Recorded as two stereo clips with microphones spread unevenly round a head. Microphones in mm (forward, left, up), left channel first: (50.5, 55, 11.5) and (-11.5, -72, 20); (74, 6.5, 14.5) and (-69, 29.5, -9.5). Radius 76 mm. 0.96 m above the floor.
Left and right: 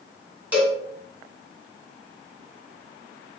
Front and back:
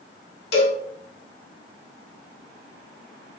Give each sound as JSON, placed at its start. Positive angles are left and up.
{"t": 0.5, "sound": "a cowbell", "azimuth_deg": -35, "distance_m": 2.0}